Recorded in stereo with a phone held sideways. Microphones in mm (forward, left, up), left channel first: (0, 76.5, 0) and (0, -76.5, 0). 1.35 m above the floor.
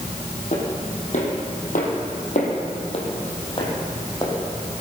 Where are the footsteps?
55° left (ahead or behind), 3.5 m; by 4.8 s 20° left (ahead or behind), 4 m.